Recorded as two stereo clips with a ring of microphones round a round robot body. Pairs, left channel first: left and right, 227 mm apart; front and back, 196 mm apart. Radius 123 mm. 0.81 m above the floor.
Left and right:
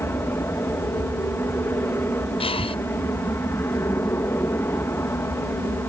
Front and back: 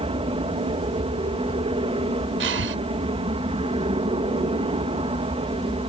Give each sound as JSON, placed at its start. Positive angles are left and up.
{"t": 0.0, "sound": "an aircraft", "azimuth_deg": 160}
{"t": 2.4, "sound": "breathing", "azimuth_deg": 160}